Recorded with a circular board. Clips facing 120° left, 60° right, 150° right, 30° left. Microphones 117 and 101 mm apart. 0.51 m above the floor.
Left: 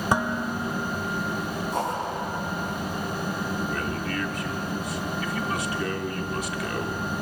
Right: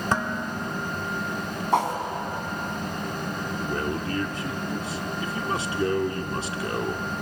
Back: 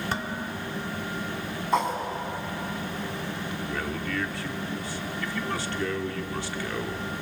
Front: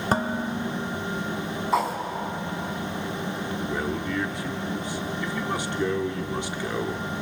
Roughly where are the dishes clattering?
Ahead left.